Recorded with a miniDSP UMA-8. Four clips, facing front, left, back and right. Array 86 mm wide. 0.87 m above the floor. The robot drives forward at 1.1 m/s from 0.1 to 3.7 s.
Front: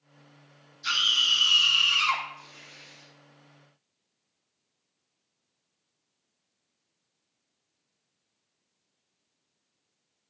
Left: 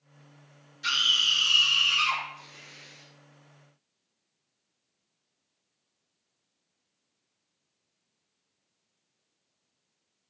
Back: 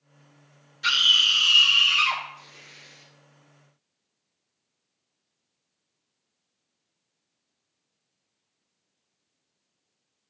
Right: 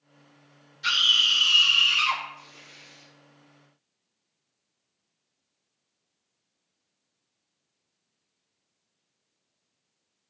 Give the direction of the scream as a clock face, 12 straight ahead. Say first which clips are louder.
Right 3 dB, back 4 dB; 6 o'clock.